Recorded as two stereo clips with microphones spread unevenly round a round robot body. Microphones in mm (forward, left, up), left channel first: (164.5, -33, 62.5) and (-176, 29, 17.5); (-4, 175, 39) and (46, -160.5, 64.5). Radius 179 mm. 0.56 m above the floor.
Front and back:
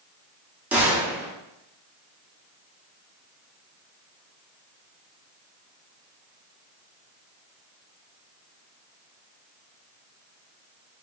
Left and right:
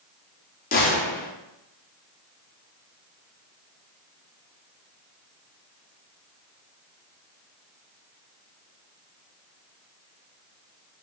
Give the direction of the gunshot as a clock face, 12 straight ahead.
8 o'clock.